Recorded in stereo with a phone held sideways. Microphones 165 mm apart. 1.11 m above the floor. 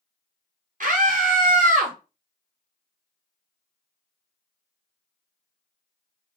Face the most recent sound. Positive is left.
turn(degrees=-55)  # may be behind; listen again after turning